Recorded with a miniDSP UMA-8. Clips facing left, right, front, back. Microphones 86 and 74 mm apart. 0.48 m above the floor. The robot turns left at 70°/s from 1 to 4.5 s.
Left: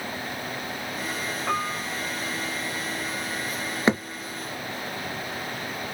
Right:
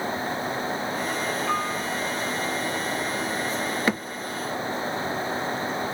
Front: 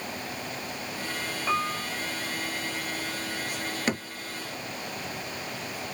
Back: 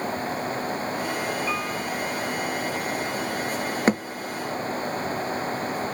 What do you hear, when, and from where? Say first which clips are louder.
1.5 s a piano: right 2 dB, even; 60° left, 0.6 m; by 1.9 s 30° left, 0.6 m
3.9 s a thud: left 5 dB, back 8 dB; 150° left, 0.6 m; by 4.0 s 140° left, 0.6 m